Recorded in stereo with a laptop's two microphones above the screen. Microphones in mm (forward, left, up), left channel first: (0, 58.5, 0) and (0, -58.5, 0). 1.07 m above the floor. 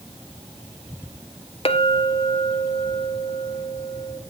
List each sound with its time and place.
1.6 s a clink: 50° left (ahead or behind), 0.9 m